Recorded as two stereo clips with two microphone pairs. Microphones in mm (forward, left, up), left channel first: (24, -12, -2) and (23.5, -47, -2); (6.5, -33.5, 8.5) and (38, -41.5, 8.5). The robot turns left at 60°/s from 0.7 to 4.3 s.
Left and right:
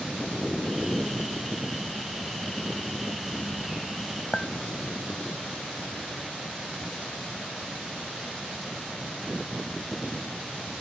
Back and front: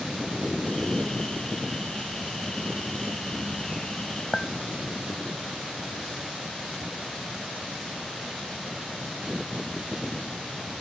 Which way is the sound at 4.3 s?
125° left.